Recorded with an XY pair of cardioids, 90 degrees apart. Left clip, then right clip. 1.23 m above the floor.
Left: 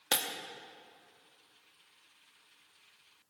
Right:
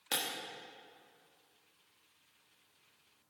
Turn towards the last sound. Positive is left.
turn(degrees=55)